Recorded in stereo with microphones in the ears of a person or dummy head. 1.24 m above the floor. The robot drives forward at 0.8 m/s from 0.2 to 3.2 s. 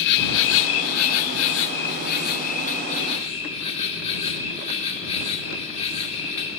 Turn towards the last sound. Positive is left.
turn(degrees=35)  # may be behind; listen again after turning